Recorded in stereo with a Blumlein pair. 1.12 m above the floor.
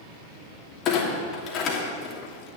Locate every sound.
0.8 s a clunk: 35° left, 3 m